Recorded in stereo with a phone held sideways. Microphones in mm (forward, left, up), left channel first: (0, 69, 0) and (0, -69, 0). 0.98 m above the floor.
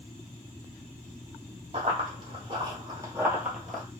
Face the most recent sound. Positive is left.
turn(degrees=5)  # may be behind; listen again after turning